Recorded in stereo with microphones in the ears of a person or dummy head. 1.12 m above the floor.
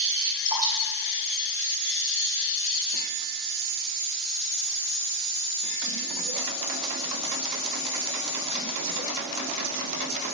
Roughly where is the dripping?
Centre.